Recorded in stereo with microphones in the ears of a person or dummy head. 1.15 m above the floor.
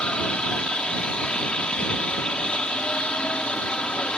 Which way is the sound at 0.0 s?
5° left (ahead or behind).